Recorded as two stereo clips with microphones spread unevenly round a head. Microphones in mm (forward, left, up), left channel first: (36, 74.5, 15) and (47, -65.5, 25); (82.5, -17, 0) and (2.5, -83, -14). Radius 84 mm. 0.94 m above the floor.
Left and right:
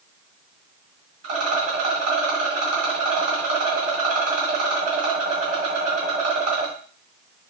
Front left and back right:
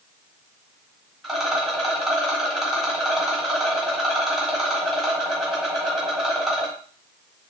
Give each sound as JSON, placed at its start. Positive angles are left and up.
{"t": 1.2, "sound": "a rattle", "azimuth_deg": -55, "distance_m": 1.9}